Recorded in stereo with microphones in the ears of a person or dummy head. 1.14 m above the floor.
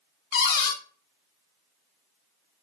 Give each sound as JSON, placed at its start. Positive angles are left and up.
{"t": 0.3, "sound": "a cupboard door", "side_deg": 60, "distance_m": 1.0}